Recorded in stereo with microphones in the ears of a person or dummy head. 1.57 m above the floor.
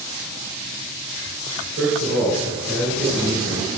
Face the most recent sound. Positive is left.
turn(degrees=-65)  # may be behind; listen again after turning